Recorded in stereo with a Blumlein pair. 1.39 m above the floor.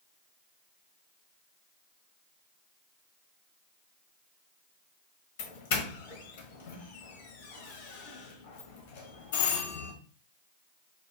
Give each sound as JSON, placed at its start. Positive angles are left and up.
{"t": 5.4, "sound": "a doorbell", "azimuth_deg": 50, "distance_m": 0.8}